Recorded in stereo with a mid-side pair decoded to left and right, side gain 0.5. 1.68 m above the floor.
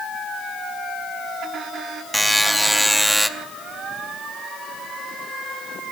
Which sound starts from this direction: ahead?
A buzzer, at 2.1 s.